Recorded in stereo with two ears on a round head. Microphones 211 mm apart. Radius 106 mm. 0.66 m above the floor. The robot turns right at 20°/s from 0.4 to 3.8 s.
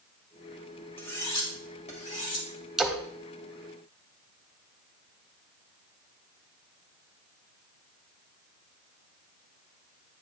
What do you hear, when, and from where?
1.0 s cutlery clinking: 10° left (ahead or behind), 1.9 m; by 2.5 s 40° left (ahead or behind), 1.9 m
2.8 s a splash: centre (ahead or behind), 0.6 m; by 3.0 s 5° right (ahead or behind), 0.6 m